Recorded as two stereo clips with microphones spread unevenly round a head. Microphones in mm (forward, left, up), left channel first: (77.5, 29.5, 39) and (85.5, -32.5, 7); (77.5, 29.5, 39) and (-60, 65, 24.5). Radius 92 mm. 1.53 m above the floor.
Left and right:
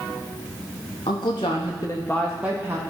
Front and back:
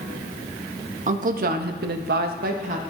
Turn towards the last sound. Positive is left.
turn(degrees=-145)